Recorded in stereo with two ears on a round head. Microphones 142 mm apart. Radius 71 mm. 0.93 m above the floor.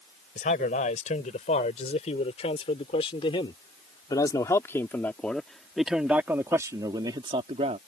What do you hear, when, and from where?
0.3 s a man speaking: 50° left (ahead or behind); by 7.8 s 40° right (ahead or behind)